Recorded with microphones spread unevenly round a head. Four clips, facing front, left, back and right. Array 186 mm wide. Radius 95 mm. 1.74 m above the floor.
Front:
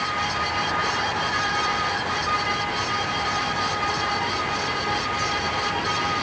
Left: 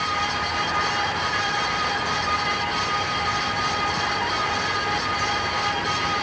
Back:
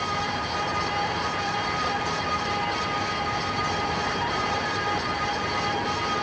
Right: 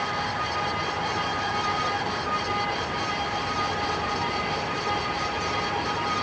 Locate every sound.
Only background noise.